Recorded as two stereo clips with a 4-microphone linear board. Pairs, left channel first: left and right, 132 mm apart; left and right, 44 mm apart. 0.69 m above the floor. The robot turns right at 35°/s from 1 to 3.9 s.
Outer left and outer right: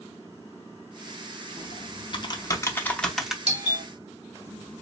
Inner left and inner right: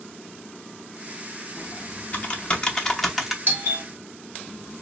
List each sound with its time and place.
1.6 s typing on a keyboard: 55° left (ahead or behind), 0.7 m; by 3.4 s 5° right (ahead or behind), 0.7 m
3.5 s a doorbell: 50° right (ahead or behind), 1.4 m